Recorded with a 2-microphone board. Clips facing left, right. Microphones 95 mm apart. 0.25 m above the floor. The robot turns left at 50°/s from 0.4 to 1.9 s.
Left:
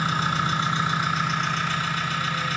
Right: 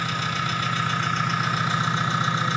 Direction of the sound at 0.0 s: 45° left.